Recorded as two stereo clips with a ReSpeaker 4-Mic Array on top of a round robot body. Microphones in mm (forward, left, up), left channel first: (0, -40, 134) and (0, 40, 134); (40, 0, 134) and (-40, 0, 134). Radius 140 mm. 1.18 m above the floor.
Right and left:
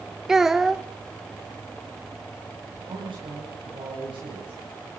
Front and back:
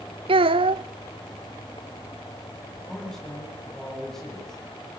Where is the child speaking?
175° left, 0.5 m.